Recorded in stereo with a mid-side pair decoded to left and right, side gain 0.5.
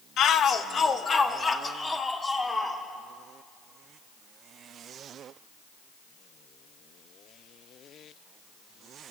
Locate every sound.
0.2 s a shout: 65° left, 1.4 m; by 2.8 s 25° left, 4 m